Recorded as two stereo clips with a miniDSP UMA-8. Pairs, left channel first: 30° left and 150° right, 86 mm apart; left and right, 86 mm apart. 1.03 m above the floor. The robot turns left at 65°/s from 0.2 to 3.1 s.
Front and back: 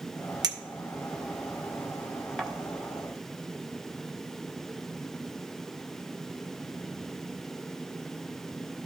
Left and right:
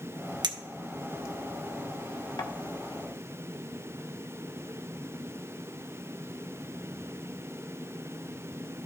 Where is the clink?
115° right, 0.9 m; by 2.5 s 110° left, 0.9 m.